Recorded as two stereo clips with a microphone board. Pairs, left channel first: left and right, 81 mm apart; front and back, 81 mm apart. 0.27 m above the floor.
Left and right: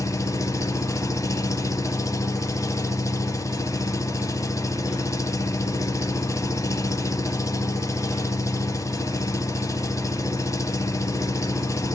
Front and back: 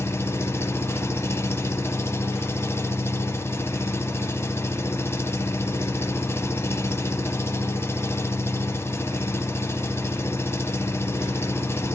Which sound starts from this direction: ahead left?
An engine running, at 0.0 s.